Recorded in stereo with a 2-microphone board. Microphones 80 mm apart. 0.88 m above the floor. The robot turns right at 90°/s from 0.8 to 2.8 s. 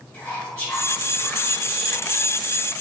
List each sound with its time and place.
0.1 s whispering: 30° left, 1.8 m; by 2.8 s 150° right, 1.8 m